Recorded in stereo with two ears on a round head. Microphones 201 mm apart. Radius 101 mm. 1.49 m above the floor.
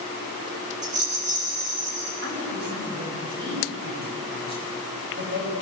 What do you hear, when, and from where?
0.8 s a rattle: 35° right (ahead or behind), 7 m
2.2 s a woman speaking: 50° right (ahead or behind), 8.5 m